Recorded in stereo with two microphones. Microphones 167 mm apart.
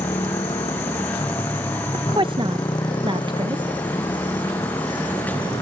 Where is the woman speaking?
30° right (ahead or behind).